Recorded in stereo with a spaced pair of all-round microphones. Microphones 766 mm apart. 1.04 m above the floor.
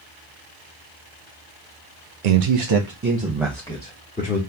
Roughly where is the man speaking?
Right.